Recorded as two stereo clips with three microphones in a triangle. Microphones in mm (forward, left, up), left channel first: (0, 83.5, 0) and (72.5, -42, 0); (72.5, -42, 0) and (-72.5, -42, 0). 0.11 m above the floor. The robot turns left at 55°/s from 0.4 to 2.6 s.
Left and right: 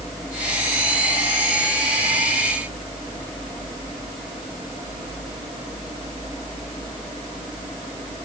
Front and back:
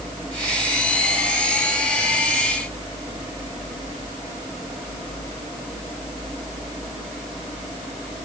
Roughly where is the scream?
I don't hear a scream.